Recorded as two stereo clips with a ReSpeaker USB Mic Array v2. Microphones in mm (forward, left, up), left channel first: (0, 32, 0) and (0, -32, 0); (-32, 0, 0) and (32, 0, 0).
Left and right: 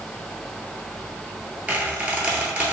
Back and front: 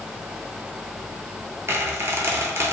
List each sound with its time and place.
1.7 s a squeak: 30° right, 0.8 m